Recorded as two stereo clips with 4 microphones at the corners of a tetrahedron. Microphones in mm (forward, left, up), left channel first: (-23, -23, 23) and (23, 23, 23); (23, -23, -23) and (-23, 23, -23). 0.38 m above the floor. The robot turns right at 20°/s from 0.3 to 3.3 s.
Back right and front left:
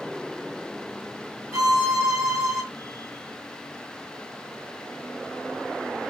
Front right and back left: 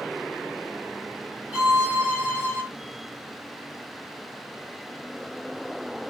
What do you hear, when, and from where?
1.5 s a violin: 65° left, 3 m; by 2.6 s 85° left, 3 m